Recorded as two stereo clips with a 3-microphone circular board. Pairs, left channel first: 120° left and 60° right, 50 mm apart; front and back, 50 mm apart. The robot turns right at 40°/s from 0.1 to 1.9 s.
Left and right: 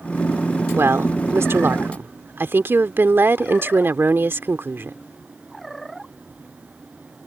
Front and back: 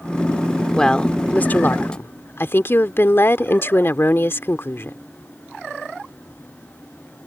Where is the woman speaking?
75° right; by 5.0 s 30° right.